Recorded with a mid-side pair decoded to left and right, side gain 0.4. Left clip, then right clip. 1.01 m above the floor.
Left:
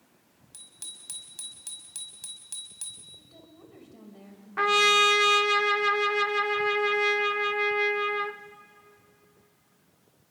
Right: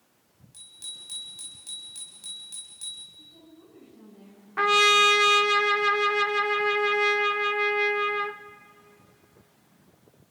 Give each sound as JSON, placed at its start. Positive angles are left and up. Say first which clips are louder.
{"t": 0.5, "sound": "a bicycle bell", "louder": "right 4 dB", "azimuth_deg": 55, "distance_m": 5.0}
{"t": 3.2, "sound": "a woman speaking", "louder": "right 2 dB", "azimuth_deg": 70, "distance_m": 5.5}
{"t": 4.6, "sound": "a trumpet", "louder": "right 2 dB", "azimuth_deg": -10, "distance_m": 0.7}